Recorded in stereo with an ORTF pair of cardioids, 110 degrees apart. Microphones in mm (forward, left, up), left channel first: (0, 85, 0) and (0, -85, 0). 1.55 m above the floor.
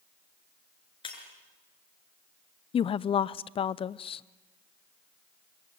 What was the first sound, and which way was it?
Breaking glass, 35° left.